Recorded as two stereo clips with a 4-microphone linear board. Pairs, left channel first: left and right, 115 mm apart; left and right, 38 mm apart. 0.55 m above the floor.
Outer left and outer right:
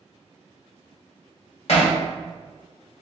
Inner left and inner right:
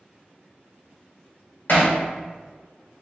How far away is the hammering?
About 1.4 m.